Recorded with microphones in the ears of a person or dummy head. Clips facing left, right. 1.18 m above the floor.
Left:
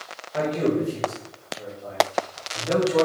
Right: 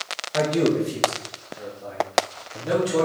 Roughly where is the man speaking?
Centre.